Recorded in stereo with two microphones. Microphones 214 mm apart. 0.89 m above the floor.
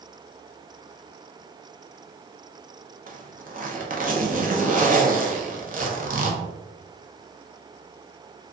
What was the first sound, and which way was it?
A zipper, 40° right (ahead or behind).